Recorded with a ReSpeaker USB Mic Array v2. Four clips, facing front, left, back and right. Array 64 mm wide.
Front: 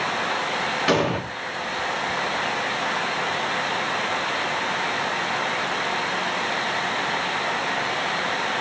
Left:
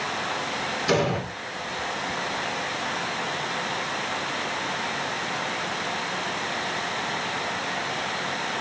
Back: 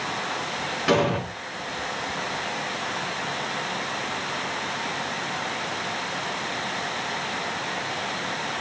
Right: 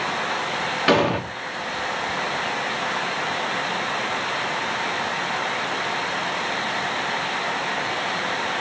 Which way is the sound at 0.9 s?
80° right.